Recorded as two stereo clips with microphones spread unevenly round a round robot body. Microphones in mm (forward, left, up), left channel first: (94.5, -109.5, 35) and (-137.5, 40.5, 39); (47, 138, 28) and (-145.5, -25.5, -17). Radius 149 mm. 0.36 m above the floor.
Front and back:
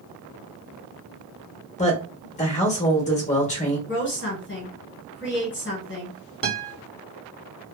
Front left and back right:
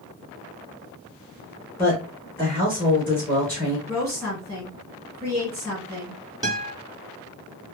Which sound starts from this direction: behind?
A guitar, at 6.4 s.